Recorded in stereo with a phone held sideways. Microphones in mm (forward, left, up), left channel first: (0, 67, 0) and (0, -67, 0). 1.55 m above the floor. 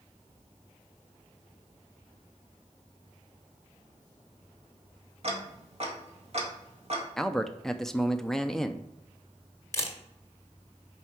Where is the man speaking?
5° left (ahead or behind), 0.6 m.